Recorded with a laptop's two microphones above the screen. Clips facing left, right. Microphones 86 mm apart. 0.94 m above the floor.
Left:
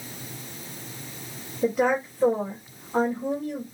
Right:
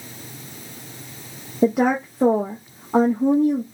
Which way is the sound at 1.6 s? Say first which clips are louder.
Right 4 dB; 70° right (ahead or behind).